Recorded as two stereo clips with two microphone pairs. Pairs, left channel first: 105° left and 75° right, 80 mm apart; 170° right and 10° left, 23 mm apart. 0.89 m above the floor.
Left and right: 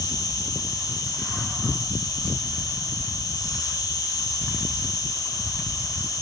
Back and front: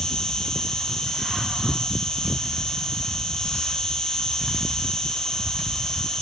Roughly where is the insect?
Behind left.